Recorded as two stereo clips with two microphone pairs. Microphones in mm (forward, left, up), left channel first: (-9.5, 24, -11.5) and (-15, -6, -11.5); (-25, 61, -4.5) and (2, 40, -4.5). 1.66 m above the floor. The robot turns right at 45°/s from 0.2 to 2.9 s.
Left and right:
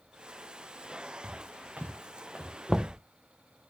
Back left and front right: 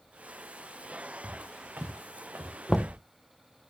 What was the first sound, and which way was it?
Footsteps, 70° right.